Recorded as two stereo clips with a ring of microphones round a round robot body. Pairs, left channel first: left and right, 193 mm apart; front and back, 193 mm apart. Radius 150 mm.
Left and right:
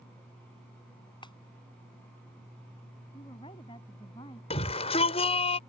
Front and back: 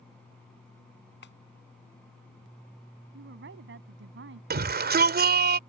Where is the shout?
150° left.